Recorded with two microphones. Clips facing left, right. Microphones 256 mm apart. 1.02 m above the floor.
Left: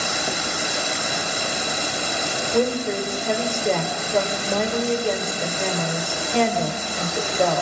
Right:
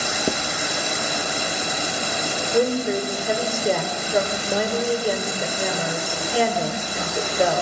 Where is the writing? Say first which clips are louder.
Right 8 dB; 45° right (ahead or behind), 1.5 m.